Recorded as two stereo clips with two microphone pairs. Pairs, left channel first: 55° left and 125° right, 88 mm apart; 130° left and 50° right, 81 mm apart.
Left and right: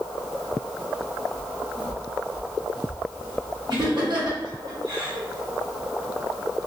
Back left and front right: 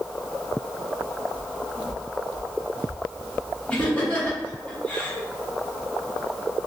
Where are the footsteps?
125° right, 1.1 m; by 4.4 s 115° right, 3 m.